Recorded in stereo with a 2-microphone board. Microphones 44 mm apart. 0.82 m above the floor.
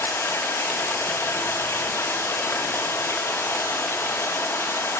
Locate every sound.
0.0 s running water: 80° left, 1.1 m